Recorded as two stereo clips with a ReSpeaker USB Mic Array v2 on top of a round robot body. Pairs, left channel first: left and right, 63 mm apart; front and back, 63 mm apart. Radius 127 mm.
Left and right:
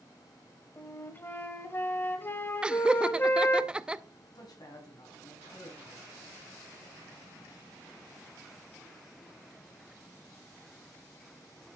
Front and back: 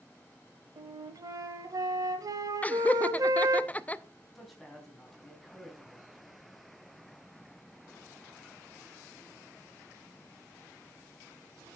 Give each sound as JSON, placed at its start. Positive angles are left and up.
{"t": 0.8, "sound": "a flute", "azimuth_deg": 150, "distance_m": 1.1}
{"t": 2.6, "sound": "laughter", "azimuth_deg": -35, "distance_m": 0.9}
{"t": 4.3, "sound": "a man speaking", "azimuth_deg": 90, "distance_m": 4.0}